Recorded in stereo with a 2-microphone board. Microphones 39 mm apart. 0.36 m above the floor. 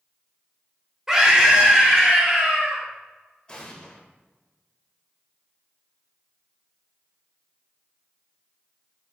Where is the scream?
10° right (ahead or behind), 1.0 m; by 2.8 s 25° right (ahead or behind), 1.4 m.